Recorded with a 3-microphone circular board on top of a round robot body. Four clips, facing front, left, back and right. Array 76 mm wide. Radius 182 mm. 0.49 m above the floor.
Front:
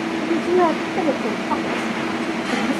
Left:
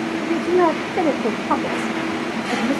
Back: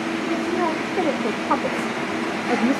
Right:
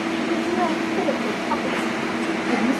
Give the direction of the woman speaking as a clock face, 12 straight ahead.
10 o'clock.